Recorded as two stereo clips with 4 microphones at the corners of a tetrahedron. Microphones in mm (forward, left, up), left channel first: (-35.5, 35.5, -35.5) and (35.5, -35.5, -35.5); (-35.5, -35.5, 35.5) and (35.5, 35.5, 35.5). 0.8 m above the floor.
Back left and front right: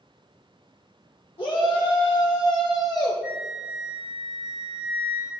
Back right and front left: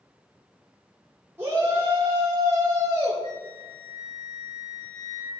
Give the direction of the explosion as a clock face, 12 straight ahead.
No explosion in this recording.